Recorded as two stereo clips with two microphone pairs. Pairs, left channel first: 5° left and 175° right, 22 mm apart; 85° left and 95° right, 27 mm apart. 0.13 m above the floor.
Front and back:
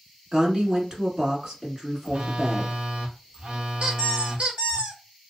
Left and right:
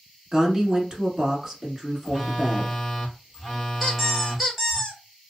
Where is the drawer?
No drawer in this recording.